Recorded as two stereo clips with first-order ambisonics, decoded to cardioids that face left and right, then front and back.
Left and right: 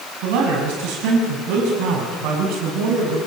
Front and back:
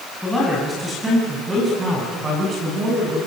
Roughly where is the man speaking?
Right.